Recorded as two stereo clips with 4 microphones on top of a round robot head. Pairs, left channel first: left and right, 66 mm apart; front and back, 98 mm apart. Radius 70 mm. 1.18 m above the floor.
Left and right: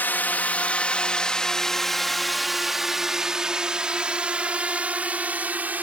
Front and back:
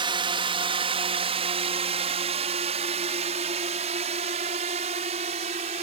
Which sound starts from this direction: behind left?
A drone, at 0.0 s.